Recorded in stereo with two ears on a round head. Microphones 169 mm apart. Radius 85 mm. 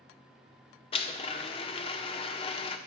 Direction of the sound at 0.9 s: 30° left (ahead or behind).